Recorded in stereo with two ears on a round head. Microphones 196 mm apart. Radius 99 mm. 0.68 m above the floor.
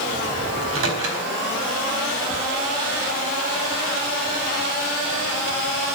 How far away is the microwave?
About 3.5 m.